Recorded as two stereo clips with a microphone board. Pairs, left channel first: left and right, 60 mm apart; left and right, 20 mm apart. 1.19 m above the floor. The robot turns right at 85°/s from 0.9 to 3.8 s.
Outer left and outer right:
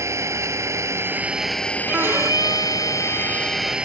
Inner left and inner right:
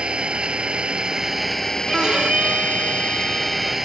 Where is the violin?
155° right; by 3.8 s 5° left.